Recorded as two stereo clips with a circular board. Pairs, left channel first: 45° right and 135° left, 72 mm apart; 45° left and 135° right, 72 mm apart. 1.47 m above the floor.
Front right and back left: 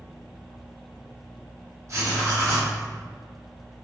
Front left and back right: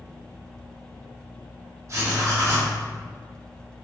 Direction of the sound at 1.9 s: Straight behind.